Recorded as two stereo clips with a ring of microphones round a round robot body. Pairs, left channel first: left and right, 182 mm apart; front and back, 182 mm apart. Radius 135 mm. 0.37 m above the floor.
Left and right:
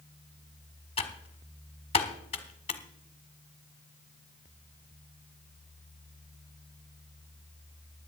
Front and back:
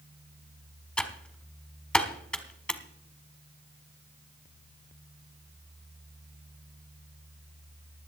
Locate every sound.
1.0 s typing on a keyboard: 80° left, 1.3 m